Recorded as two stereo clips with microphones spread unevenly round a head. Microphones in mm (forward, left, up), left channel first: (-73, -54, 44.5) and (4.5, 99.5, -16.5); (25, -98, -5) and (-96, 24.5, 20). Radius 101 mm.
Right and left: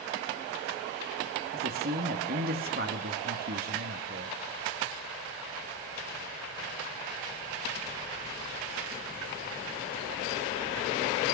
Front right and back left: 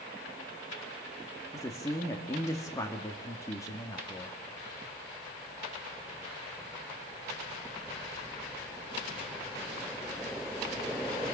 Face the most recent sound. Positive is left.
turn(degrees=30)